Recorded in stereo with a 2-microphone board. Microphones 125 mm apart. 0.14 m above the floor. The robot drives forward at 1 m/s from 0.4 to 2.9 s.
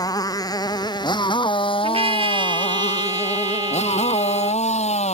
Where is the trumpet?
50° right (ahead or behind); by 4.6 s 35° right (ahead or behind).